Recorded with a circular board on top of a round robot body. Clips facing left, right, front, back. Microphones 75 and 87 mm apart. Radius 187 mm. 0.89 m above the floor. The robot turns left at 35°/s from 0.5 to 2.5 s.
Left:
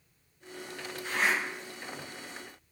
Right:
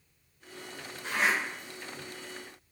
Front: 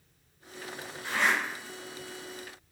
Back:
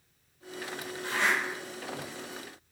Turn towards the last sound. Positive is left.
turn(degrees=180)